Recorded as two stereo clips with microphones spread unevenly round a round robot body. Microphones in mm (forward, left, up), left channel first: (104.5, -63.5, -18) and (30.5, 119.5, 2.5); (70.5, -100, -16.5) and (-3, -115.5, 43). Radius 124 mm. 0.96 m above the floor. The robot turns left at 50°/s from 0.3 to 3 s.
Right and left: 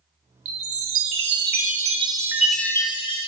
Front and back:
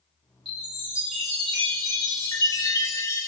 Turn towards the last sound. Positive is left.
turn(degrees=-5)